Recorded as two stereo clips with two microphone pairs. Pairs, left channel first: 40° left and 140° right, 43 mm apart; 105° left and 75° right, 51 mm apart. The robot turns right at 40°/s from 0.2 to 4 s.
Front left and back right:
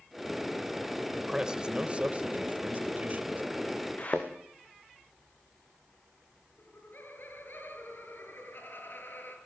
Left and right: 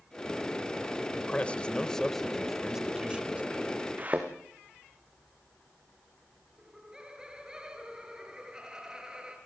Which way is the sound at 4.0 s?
15° right.